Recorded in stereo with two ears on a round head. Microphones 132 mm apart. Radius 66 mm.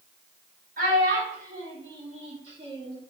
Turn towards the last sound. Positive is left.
turn(degrees=-25)  # may be behind; listen again after turning